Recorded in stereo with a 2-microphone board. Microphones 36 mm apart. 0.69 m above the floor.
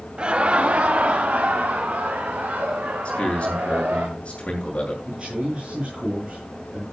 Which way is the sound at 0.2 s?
30° right (ahead or behind).